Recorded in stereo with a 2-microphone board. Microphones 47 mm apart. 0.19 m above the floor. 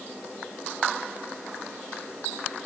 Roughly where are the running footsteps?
No running footsteps in this recording.